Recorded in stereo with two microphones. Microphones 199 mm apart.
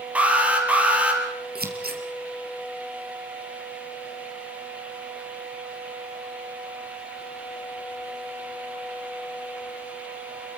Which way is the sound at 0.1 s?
5° right (ahead or behind).